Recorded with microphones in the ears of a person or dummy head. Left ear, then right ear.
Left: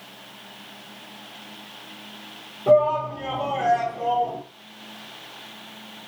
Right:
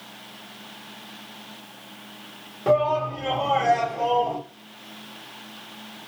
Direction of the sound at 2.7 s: 40° right (ahead or behind).